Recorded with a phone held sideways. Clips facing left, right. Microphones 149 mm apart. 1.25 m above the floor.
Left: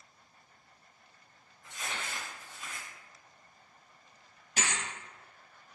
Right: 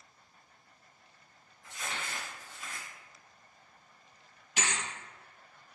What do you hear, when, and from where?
1.6 s crumpling: centre (ahead or behind), 1.9 m
4.6 s a thud: 40° left (ahead or behind), 1.6 m